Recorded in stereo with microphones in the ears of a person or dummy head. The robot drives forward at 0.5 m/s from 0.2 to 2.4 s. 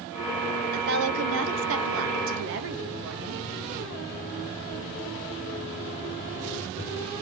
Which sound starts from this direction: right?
A woman speaking, at 0.7 s.